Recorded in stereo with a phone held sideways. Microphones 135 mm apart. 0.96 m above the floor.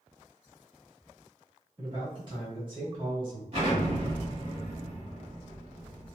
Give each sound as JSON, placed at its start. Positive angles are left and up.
{"t": 1.8, "sound": "a man speaking", "side_deg": -40, "distance_m": 1.7}
{"t": 3.5, "sound": "an explosion", "side_deg": -50, "distance_m": 1.5}